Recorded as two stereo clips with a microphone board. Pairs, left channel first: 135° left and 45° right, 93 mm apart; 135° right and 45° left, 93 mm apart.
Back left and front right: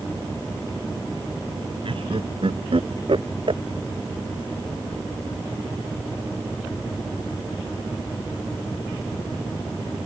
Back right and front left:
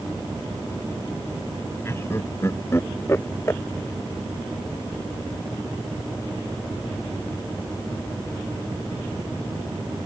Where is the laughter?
70° right.